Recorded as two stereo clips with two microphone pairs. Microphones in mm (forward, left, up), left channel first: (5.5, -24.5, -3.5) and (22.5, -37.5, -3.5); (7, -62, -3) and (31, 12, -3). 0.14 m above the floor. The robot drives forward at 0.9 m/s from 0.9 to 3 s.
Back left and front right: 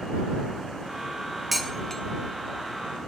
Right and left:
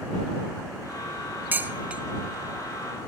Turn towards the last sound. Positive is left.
turn(degrees=170)